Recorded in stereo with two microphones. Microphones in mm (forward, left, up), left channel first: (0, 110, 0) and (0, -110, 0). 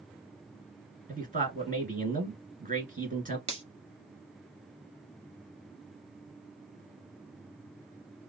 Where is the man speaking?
40° right (ahead or behind), 1.9 m.